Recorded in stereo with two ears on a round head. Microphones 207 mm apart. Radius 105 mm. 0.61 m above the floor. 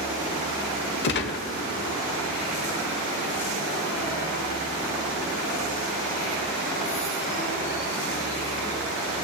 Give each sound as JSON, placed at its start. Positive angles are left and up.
{"t": 1.0, "sound": "a gunshot", "side_deg": 45, "distance_m": 1.0}